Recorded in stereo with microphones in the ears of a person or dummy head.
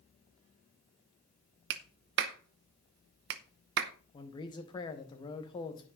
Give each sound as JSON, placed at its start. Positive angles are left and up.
{"t": 1.7, "sound": "a clap", "side_deg": -50, "distance_m": 0.8}
{"t": 4.1, "sound": "a man speaking", "side_deg": 30, "distance_m": 1.6}